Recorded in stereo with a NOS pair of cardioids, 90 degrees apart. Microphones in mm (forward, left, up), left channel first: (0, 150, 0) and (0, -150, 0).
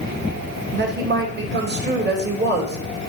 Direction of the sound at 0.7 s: 35° right.